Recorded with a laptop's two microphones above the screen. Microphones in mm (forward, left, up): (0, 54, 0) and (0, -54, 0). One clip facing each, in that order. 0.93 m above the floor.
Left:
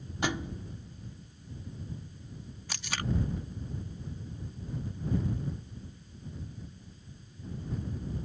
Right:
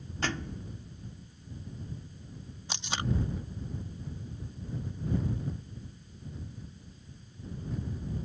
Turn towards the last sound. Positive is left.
turn(degrees=-25)  # may be behind; listen again after turning